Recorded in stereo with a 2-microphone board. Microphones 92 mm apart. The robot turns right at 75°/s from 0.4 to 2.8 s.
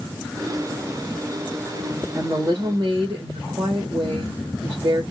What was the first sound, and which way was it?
A woman speaking, 145° right.